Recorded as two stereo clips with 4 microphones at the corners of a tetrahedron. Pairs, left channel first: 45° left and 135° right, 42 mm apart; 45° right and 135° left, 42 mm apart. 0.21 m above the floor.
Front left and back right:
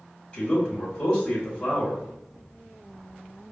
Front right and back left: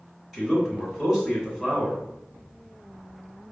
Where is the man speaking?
75° left, 1.7 m.